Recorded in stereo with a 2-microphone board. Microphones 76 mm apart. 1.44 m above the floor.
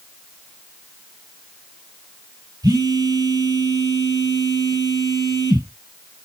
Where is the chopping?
I don't hear chopping.